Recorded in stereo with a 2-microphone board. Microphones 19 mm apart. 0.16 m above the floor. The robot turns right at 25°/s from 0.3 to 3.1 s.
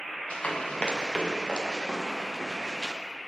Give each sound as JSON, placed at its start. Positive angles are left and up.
{"t": 0.3, "sound": "running footsteps", "side_deg": 70, "distance_m": 4.0}